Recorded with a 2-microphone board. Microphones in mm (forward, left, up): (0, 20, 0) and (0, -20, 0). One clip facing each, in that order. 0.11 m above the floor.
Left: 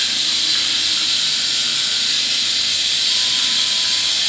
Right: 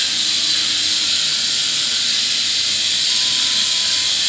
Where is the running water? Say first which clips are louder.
Even; 10° left (ahead or behind), 2 m.